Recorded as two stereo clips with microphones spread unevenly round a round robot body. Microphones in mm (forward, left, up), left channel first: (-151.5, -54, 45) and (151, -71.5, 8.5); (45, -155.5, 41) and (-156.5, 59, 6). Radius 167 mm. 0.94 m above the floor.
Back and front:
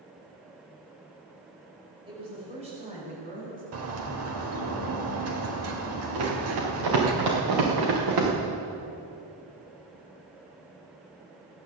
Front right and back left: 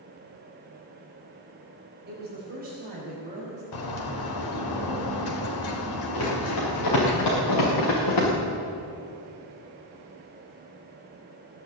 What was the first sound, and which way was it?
A woman speaking, 70° left.